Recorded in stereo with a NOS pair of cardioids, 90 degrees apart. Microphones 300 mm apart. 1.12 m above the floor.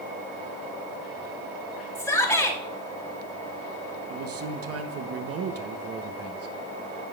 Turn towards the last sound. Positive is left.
turn(degrees=-55)